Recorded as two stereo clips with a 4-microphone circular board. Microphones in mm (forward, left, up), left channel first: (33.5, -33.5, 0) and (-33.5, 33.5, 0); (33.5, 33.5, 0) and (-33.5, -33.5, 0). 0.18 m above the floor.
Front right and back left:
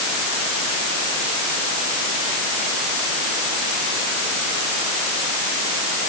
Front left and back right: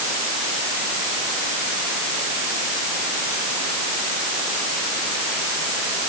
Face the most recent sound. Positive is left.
No sound to turn to.